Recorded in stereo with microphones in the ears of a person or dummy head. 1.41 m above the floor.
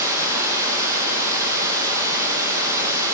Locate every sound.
0.0 s running water: 20° right (ahead or behind), 0.8 m